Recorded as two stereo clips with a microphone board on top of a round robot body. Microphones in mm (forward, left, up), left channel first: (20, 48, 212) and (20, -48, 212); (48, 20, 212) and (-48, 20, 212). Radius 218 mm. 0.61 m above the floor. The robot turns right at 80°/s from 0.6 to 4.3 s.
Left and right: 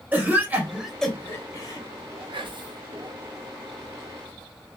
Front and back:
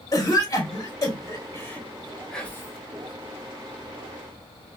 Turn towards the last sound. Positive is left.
turn(degrees=75)